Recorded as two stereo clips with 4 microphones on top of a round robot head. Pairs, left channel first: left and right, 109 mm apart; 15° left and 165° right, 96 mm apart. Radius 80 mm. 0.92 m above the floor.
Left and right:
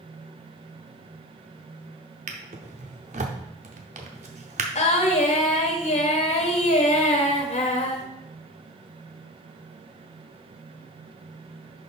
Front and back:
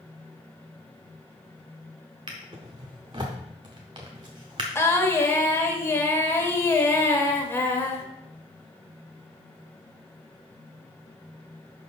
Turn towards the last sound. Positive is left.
turn(degrees=75)